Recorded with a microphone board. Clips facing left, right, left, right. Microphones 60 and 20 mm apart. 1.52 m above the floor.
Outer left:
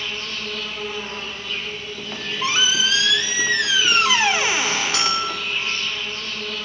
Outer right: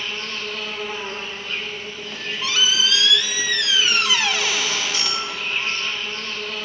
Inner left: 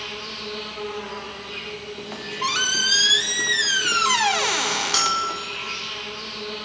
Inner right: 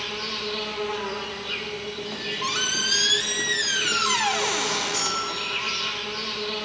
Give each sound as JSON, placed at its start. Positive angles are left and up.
{"t": 0.0, "sound": "an insect", "side_deg": -40, "distance_m": 3.0}
{"t": 2.0, "sound": "a squeak", "side_deg": 25, "distance_m": 0.5}
{"t": 4.9, "sound": "a bell", "side_deg": 70, "distance_m": 1.6}